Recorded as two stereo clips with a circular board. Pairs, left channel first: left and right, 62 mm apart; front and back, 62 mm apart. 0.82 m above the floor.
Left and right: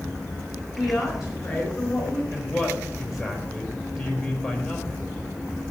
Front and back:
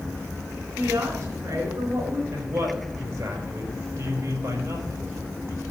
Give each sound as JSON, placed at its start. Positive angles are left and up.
{"t": 0.8, "sound": "a woman speaking", "azimuth_deg": -165, "distance_m": 4.0}
{"t": 2.3, "sound": "a man speaking", "azimuth_deg": 180, "distance_m": 4.0}